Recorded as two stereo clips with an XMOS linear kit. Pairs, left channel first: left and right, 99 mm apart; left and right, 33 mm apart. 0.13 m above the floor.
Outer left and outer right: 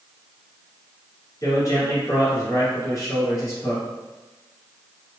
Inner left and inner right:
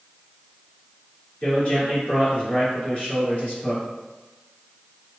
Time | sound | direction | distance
1.4 | a man speaking | 35° left (ahead or behind) | 2.0 m